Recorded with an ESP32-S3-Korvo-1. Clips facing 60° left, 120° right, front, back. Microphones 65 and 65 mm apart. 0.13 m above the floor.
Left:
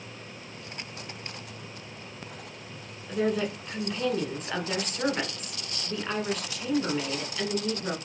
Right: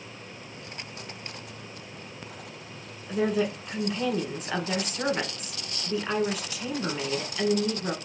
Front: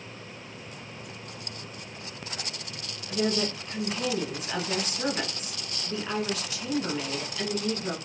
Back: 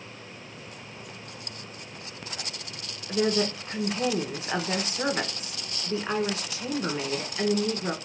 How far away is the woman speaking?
About 1.3 m.